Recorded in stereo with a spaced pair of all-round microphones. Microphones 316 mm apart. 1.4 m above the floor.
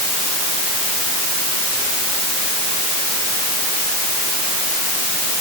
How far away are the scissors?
No scissors in this recording.